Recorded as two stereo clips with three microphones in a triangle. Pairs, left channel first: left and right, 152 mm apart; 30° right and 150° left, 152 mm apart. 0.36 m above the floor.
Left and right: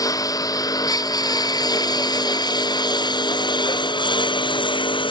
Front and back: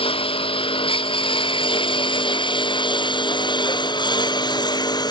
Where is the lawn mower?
25° left; by 5.1 s 35° left.